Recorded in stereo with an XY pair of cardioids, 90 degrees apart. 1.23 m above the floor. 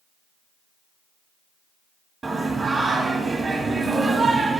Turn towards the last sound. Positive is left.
turn(degrees=-40)